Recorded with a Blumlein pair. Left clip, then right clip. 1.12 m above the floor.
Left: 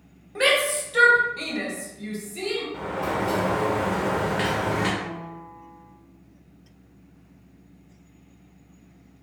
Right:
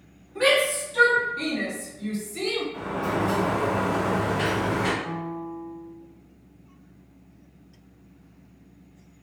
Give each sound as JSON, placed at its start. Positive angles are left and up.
{"t": 0.3, "sound": "a shout", "azimuth_deg": 60, "distance_m": 1.2}
{"t": 2.7, "sound": "a sliding door", "azimuth_deg": 20, "distance_m": 0.8}
{"t": 5.0, "sound": "a piano", "azimuth_deg": 40, "distance_m": 0.9}